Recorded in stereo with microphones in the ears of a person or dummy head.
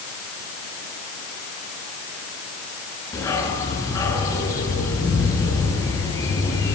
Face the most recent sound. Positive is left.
turn(degrees=20)  # may be behind; listen again after turning